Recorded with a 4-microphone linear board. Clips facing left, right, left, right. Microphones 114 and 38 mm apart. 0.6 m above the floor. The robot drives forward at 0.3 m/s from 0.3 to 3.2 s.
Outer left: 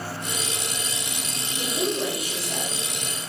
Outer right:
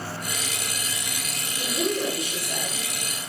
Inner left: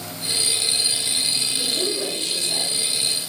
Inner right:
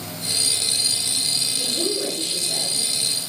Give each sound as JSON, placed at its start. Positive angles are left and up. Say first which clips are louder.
{"t": 1.6, "sound": "a woman speaking", "louder": "even, even", "side_deg": 55, "distance_m": 2.0}